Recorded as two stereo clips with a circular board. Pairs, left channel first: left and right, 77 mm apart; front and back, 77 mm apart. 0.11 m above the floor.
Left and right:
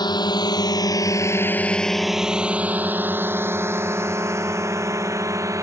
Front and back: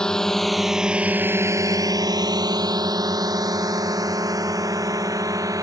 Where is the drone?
80° left; by 5.6 s 140° right.